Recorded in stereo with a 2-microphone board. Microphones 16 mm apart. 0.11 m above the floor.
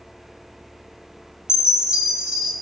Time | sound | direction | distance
1.5 | a chime | 75° right (ahead or behind) | 0.6 m